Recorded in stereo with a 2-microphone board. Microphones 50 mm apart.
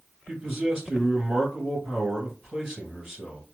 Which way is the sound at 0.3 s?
10° right (ahead or behind).